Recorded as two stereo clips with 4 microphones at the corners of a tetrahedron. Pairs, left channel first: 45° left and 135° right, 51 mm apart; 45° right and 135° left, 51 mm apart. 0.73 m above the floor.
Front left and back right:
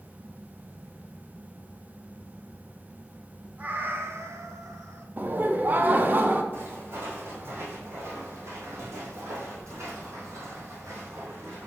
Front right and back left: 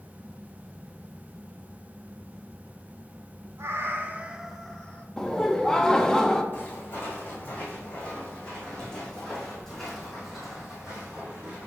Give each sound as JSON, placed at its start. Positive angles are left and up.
{"t": 3.6, "sound": "a cat meowing", "azimuth_deg": 165, "distance_m": 0.8}
{"t": 5.2, "sound": "laughter", "azimuth_deg": -115, "distance_m": 0.7}
{"t": 6.5, "sound": "footsteps", "azimuth_deg": -95, "distance_m": 2.5}